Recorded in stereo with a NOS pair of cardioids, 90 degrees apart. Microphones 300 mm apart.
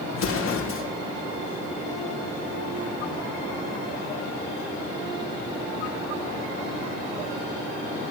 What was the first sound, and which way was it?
An explosion, 45° left.